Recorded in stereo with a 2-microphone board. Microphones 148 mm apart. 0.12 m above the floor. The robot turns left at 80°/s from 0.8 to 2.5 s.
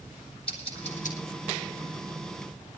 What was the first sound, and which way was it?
Scissors, 40° left (ahead or behind).